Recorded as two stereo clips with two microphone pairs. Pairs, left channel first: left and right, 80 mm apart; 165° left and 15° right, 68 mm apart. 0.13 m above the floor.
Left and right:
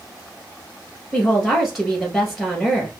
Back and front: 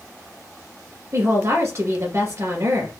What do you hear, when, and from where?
1.1 s a woman speaking: straight ahead, 2 m